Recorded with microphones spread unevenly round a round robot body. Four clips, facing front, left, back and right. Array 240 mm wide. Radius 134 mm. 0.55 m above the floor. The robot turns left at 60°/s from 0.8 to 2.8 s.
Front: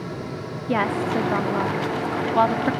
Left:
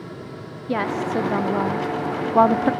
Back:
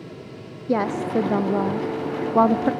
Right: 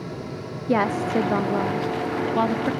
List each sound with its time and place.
0.7 s a woman speaking: 135° right, 0.7 m; by 2.7 s 110° left, 0.7 m